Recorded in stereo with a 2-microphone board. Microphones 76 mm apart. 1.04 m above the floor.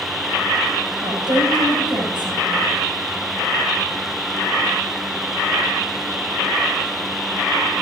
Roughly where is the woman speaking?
Right.